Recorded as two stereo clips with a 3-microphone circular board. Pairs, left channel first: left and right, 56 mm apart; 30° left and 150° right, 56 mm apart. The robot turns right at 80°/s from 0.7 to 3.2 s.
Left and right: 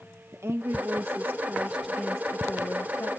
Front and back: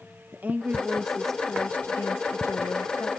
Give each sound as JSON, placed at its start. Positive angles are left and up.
{"t": 0.3, "sound": "a woman speaking", "azimuth_deg": -100, "distance_m": 0.5}